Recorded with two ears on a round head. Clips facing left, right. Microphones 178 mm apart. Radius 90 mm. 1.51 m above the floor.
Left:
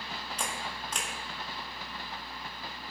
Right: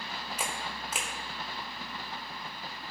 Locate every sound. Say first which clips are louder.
0.4 s a camera shutter: even; 5° right (ahead or behind), 1.4 m